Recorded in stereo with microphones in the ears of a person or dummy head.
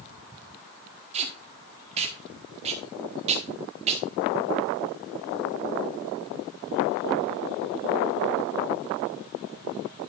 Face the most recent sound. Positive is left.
turn(degrees=-35)  # may be behind; listen again after turning